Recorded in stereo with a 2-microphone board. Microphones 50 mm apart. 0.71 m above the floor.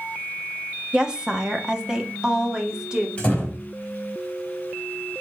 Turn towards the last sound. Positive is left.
turn(degrees=20)  # may be behind; listen again after turning